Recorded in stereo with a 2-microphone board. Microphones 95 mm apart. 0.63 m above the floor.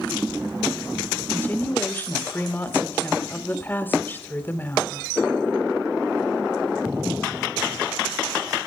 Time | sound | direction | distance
1.3 | a woman speaking | 20° left (ahead or behind) | 3 m